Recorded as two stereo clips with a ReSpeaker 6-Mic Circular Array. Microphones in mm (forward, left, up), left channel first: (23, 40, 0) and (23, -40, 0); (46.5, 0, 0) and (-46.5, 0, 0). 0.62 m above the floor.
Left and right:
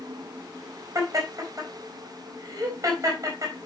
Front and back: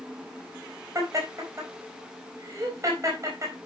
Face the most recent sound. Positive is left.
turn(degrees=-130)